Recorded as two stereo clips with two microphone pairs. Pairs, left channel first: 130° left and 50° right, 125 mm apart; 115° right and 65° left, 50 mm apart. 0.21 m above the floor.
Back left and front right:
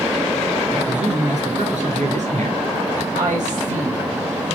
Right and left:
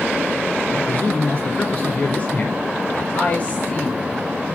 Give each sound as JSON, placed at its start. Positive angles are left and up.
{"t": 0.7, "sound": "a man speaking", "azimuth_deg": -55, "distance_m": 3.5}
{"t": 3.1, "sound": "a woman speaking", "azimuth_deg": -50, "distance_m": 3.5}